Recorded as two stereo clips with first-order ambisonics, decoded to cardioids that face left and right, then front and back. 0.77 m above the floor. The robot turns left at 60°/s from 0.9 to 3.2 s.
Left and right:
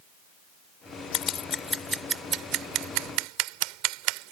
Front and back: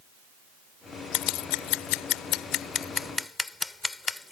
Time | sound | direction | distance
1.1 | scissors | 40° left | ?